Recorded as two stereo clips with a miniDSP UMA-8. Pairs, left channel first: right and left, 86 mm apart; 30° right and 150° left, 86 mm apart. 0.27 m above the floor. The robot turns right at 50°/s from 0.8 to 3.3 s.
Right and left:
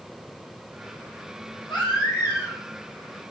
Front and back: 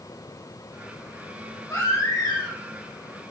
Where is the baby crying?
85° right, 6 m; by 2.6 s 40° right, 6 m.